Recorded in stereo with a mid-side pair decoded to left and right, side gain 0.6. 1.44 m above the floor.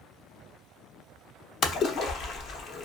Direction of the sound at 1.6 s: 50° left.